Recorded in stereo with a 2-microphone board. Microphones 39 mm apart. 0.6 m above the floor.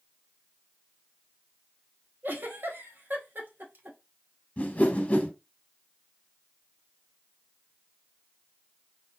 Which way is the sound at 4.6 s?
35° left (ahead or behind).